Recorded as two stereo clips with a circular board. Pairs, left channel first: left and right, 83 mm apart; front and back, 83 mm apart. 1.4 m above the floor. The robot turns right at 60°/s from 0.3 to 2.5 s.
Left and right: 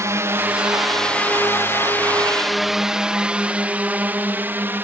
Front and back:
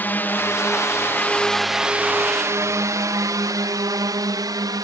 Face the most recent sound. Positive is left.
turn(degrees=-150)